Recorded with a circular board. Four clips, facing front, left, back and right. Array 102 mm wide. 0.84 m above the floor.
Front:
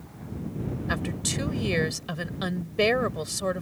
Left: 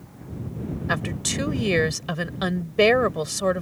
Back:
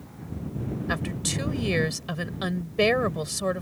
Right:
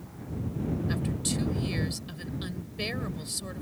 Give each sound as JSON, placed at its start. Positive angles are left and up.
{"t": 0.9, "sound": "a woman speaking", "azimuth_deg": 95}